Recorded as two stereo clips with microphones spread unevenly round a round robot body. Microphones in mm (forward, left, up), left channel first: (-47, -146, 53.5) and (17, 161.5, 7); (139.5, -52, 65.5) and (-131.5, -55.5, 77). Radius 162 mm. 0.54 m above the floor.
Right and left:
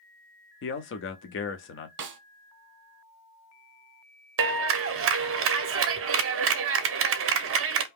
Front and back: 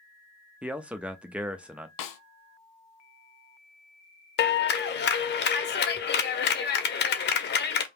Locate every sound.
0.6 s a man speaking: 95° right, 0.6 m
2.0 s a snare drum: 20° left, 0.8 m
4.4 s a clap: 45° left, 0.8 m